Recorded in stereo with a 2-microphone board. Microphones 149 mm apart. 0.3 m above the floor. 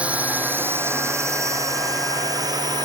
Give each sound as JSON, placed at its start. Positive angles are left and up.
{"t": 0.0, "sound": "a drone", "side_deg": -10}